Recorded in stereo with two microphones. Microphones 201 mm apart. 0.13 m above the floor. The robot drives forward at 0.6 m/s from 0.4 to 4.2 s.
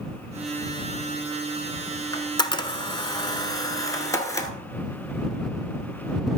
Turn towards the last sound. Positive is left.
turn(degrees=15)  # may be behind; listen again after turning